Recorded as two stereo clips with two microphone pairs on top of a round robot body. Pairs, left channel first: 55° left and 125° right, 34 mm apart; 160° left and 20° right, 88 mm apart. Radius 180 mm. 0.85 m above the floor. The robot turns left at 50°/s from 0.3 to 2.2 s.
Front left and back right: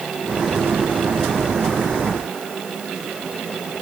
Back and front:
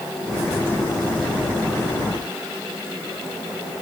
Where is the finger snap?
No finger snap in this recording.